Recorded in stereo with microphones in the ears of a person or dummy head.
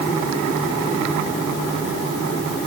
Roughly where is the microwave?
I don't hear a microwave.